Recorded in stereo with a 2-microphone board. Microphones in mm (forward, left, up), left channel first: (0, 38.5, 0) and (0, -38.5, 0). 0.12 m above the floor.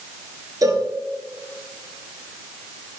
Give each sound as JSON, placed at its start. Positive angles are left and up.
{"t": 0.6, "sound": "a cowbell", "side_deg": -50, "distance_m": 1.5}